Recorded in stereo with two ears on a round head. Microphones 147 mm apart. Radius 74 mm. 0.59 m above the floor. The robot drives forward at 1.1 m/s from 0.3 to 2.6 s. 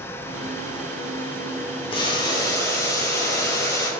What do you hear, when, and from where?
1.9 s boiling: 30° left (ahead or behind), 1.3 m; by 3.9 s 20° left (ahead or behind), 1.9 m